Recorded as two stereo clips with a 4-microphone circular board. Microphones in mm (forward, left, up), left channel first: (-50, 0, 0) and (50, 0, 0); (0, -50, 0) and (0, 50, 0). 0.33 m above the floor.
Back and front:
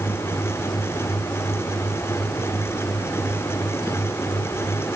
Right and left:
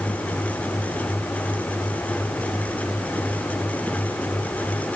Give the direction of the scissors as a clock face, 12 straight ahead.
I don't hear scissors.